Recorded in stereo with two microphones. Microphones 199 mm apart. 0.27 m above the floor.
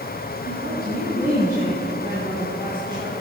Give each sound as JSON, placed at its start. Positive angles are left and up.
{"t": 0.5, "sound": "a woman speaking", "side_deg": -60, "distance_m": 3.0}